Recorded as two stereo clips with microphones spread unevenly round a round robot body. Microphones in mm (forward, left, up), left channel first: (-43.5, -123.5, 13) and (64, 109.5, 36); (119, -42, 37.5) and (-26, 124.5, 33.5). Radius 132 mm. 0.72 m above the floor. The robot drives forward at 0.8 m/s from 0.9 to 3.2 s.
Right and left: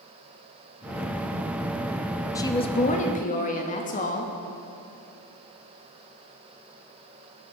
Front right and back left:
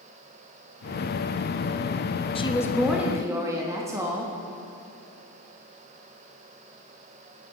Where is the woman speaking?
70° right, 0.7 m; by 4.3 s 155° right, 0.9 m.